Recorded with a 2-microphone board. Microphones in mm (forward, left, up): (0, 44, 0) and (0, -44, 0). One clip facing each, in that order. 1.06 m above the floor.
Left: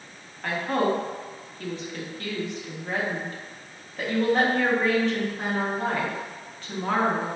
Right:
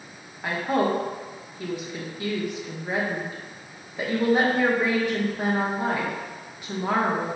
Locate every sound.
0.4 s a woman speaking: 15° right (ahead or behind), 0.8 m